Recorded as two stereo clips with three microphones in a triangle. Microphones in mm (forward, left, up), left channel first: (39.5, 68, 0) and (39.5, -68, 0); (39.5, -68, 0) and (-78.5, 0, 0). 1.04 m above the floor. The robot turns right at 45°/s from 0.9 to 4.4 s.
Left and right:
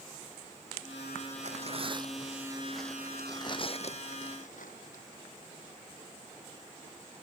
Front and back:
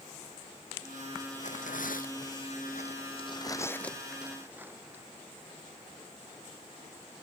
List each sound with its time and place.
1.4 s tearing paper: 60° right; by 5.0 s 75° left